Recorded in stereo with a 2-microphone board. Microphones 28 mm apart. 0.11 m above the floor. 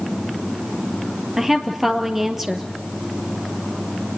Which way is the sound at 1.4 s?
10° right (ahead or behind).